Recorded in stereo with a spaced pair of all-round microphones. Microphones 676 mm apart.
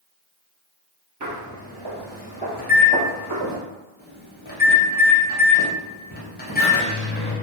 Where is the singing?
No singing in this recording.